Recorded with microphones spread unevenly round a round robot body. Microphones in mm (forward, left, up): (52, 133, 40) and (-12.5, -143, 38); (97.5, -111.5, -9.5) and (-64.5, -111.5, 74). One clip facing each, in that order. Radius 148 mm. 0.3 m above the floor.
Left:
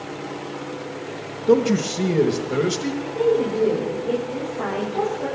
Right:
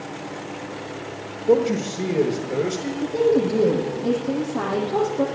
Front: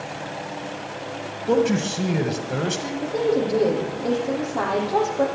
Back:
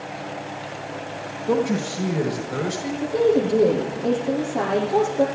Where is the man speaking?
15° left, 1.5 m.